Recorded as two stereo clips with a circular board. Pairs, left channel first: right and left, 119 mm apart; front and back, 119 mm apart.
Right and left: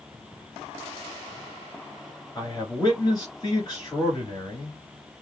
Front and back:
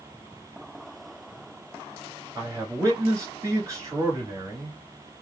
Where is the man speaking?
130° right, 1.8 m.